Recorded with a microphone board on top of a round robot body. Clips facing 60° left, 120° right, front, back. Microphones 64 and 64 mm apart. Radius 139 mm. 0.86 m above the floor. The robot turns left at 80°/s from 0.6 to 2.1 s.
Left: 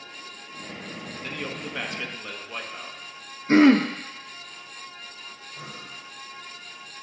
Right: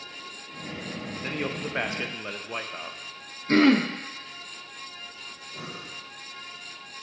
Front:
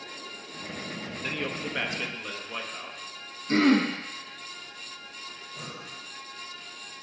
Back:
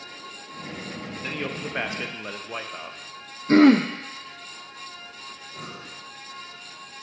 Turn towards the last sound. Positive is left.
turn(degrees=-130)